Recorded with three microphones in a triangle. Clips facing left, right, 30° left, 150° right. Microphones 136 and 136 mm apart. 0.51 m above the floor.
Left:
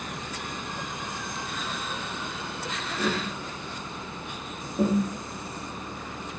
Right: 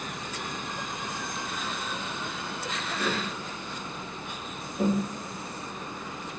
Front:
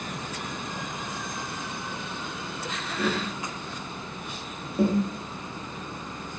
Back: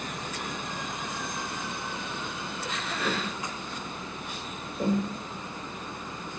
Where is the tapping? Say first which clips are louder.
Left 3 dB, front 4 dB; 35° left, 4.5 m.